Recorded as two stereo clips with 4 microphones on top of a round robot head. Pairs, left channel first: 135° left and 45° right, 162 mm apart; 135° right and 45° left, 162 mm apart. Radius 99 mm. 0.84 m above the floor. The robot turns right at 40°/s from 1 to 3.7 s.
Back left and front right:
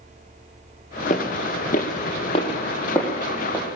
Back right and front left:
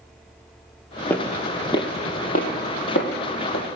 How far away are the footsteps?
About 1.0 m.